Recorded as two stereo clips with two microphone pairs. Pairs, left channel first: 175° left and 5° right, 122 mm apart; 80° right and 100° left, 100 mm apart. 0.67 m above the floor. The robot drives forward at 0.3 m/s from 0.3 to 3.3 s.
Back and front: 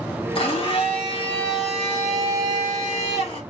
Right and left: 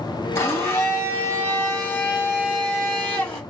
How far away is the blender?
About 3 m.